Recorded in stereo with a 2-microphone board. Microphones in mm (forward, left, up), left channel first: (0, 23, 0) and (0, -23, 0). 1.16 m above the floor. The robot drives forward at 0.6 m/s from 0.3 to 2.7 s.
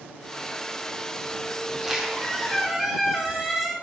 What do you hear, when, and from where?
1.7 s a squeak: 15° right (ahead or behind), 1.2 m; by 3.7 s 10° right (ahead or behind), 1.8 m